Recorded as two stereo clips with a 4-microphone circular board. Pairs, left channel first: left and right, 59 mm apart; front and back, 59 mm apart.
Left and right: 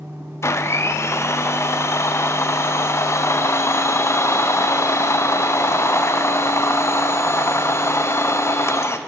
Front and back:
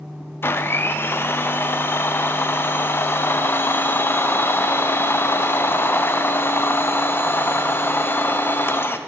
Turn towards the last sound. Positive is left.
turn(degrees=50)